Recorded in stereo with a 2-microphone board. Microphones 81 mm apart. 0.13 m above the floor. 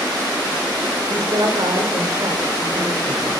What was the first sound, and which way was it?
A woman speaking, 70° right (ahead or behind).